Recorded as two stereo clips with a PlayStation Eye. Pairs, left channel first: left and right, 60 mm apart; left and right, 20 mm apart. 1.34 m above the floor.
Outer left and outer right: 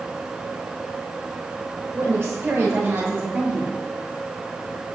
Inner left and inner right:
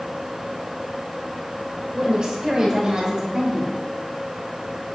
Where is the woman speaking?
45° right (ahead or behind), 6 m; by 3.8 s 35° right (ahead or behind), 7 m.